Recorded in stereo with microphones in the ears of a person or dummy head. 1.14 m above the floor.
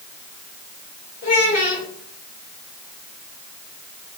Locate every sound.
1.2 s a child speaking: 45° left (ahead or behind), 1.5 m